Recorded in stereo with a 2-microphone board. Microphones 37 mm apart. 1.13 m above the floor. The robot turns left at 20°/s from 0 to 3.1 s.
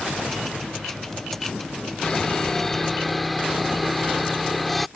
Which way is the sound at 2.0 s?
20° left (ahead or behind).